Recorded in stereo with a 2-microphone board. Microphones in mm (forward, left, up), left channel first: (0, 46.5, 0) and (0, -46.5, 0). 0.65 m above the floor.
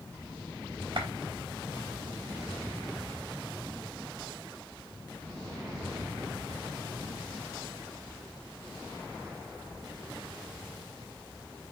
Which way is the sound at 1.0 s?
60° right (ahead or behind).